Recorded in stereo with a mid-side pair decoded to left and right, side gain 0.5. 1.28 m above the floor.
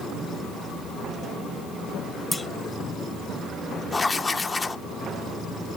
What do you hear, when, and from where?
2.3 s a clunk: 15° left, 0.9 m
3.9 s writing: 25° left, 0.7 m